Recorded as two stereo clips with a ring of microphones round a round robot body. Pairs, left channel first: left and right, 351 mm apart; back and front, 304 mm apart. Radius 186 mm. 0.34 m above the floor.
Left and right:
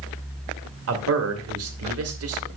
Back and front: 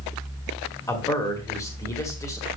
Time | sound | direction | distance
0.9 | a man speaking | 105° right | 1.9 m